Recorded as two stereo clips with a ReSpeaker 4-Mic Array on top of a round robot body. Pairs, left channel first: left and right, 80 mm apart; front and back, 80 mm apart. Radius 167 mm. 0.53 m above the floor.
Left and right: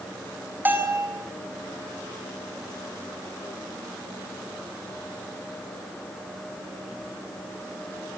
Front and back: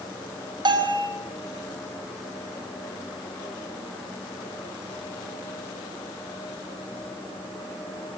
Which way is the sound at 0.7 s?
155° right.